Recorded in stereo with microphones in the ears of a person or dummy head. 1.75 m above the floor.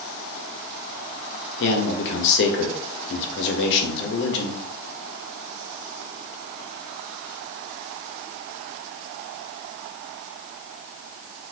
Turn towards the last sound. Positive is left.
turn(degrees=60)  # may be behind; listen again after turning